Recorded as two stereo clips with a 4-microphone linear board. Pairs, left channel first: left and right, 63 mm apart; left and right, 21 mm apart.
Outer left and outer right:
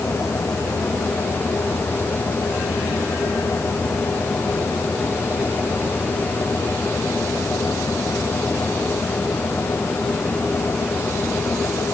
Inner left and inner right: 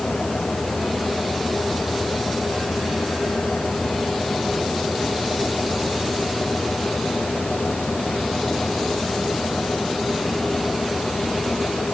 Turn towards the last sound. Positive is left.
No sound to turn to.